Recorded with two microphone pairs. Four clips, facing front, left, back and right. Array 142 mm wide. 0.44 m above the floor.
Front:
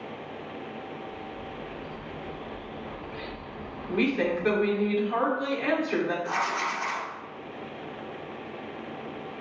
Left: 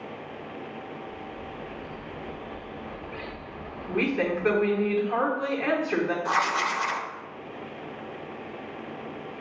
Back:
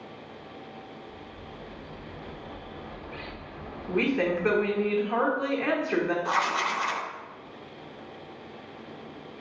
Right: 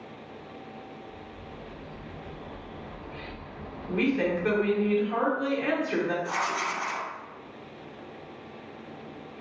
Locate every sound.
1.1 s a bird: 115° left, 0.9 m
3.9 s a woman speaking: 140° left, 0.8 m
6.2 s writing: 125° left, 0.5 m